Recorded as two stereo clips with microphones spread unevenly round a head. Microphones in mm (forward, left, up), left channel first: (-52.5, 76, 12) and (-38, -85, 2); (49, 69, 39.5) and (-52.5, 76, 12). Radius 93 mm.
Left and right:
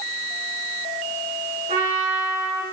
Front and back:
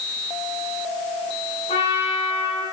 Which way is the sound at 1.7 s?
25° right.